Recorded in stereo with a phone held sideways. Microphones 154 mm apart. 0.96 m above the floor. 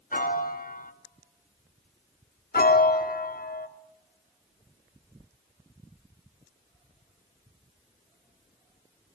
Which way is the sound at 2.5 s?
70° left (ahead or behind).